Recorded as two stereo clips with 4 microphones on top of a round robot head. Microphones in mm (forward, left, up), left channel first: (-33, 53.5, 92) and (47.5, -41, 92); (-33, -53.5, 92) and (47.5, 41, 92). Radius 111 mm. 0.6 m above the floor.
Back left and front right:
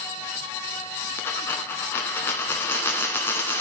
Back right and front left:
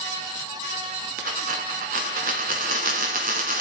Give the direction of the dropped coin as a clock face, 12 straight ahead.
10 o'clock.